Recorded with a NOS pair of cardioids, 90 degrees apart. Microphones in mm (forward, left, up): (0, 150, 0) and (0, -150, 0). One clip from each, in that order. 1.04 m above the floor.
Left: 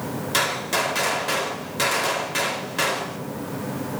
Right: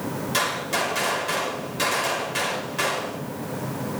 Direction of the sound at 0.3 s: 25° left.